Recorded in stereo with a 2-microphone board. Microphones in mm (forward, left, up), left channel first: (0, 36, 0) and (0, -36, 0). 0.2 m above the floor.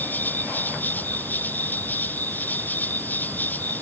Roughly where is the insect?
Left.